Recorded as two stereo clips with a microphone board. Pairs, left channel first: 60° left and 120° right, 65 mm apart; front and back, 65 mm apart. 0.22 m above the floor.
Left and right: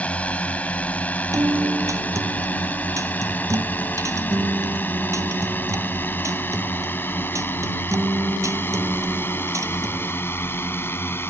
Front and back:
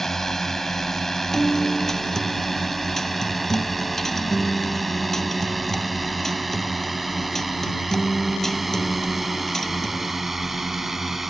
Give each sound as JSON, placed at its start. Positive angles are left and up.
{"t": 0.0, "sound": "a drone", "azimuth_deg": 75}
{"t": 1.3, "sound": "a guitar", "azimuth_deg": -85}